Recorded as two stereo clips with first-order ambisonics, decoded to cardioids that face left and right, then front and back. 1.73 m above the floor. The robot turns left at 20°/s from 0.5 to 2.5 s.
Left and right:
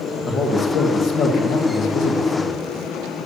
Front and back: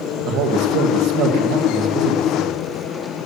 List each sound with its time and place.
0.2 s a man speaking: 155° left, 2 m; by 2.6 s 115° left, 2 m